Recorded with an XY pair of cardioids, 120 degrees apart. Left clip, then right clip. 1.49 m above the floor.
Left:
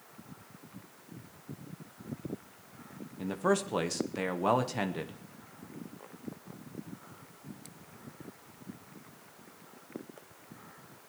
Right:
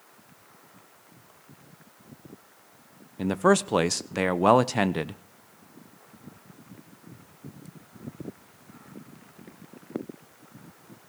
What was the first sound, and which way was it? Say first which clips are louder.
A man speaking: right 8 dB; 45° right.